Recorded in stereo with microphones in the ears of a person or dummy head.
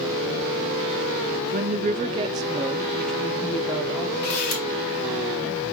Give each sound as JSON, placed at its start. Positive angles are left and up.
{"t": 1.5, "sound": "a woman speaking", "side_deg": -35, "distance_m": 0.6}
{"t": 4.2, "sound": "a camera shutter", "side_deg": 45, "distance_m": 2.5}